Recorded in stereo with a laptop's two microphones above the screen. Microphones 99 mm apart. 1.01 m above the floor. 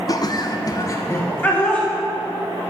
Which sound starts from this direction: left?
Laughter, at 0.1 s.